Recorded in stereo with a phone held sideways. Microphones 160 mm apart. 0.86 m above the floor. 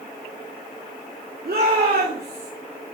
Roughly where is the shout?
Right.